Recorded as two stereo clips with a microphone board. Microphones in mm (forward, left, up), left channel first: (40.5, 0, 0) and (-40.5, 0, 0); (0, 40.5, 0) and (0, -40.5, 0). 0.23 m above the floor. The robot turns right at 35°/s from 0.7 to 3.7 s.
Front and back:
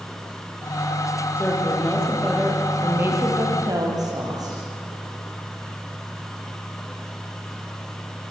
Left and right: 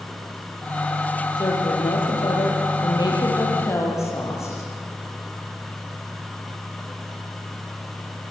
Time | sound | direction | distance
1.4 | a woman speaking | 60° left | 6.5 m